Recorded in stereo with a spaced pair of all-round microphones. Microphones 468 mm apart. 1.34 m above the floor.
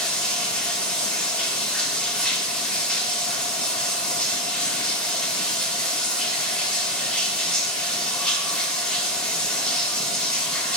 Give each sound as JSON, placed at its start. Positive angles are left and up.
{"t": 0.0, "sound": "running water", "side_deg": 0, "distance_m": 1.6}